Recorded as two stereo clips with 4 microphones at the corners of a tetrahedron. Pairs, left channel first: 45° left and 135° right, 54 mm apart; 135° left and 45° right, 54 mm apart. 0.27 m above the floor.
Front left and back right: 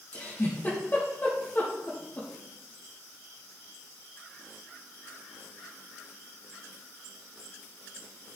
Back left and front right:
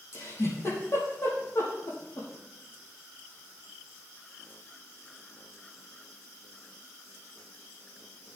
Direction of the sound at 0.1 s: 100° left.